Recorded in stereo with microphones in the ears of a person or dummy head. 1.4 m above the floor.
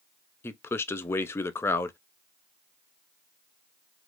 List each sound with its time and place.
0.4 s a man speaking: 10° left (ahead or behind), 0.6 m